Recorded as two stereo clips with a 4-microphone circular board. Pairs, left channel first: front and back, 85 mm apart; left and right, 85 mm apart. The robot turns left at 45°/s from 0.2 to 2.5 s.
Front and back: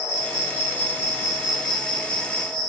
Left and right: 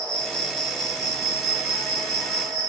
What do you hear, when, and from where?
0.0 s an insect: 95° left, 2 m; by 2.7 s 10° right, 2 m